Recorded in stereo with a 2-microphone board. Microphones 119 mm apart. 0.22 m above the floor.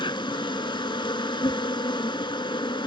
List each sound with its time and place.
0.0 s an insect: 40° left (ahead or behind), 0.8 m